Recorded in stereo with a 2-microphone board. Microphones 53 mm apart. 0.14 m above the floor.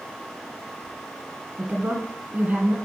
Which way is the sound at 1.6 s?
30° right (ahead or behind).